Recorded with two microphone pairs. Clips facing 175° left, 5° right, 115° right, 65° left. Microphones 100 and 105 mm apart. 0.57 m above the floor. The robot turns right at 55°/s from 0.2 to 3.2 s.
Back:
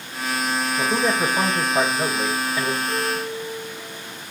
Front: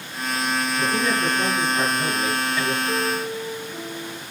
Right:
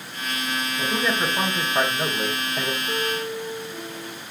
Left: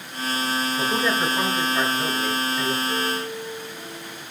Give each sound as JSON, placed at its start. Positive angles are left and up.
{"t": 0.8, "sound": "a man speaking", "azimuth_deg": 130, "distance_m": 3.0}
{"t": 2.9, "sound": "a piano", "azimuth_deg": -70, "distance_m": 1.9}